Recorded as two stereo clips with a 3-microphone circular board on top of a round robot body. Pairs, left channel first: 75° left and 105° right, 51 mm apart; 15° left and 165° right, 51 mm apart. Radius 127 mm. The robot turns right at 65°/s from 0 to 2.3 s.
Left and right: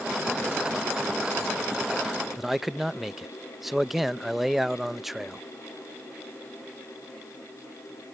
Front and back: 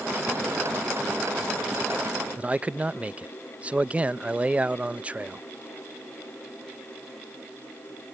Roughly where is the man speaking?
Behind.